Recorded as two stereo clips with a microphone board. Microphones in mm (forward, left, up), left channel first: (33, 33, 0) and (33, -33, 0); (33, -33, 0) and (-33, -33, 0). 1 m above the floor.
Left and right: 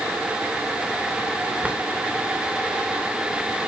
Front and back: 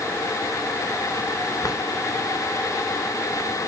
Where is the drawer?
15° right, 2 m.